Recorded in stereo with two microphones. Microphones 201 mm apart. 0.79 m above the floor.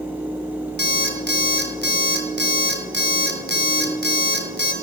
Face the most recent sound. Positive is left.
turn(degrees=-60)  # may be behind; listen again after turning